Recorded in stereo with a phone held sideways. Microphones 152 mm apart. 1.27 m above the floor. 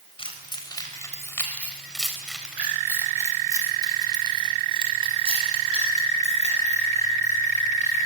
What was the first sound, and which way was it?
Keys jangling, 35° left (ahead or behind).